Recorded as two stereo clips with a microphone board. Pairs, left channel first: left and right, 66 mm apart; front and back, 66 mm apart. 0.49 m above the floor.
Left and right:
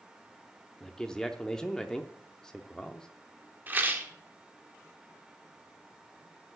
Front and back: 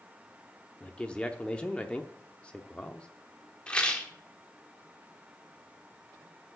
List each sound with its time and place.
0.8 s a man speaking: 30° left, 0.7 m
3.7 s a rattle: 60° right, 1.4 m